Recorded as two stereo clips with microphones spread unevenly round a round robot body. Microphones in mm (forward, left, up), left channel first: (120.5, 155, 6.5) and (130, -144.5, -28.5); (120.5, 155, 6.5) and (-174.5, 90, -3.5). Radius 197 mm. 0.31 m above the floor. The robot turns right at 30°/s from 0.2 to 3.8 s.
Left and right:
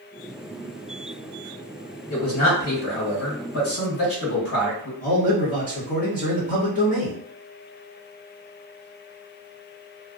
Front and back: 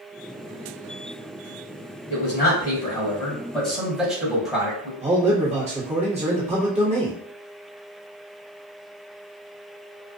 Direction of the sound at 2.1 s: 55° left.